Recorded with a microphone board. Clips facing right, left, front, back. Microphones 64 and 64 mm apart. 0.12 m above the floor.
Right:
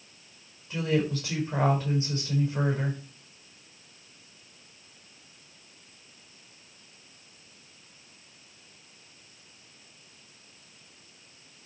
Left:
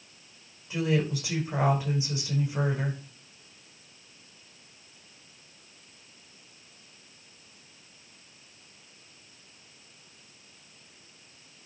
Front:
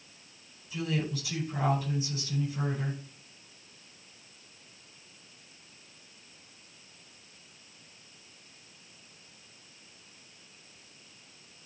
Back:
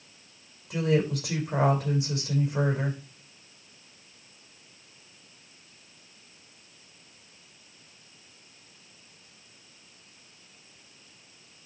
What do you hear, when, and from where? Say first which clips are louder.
0.7 s a woman speaking: even, back 7 dB; 165° left, 6.5 m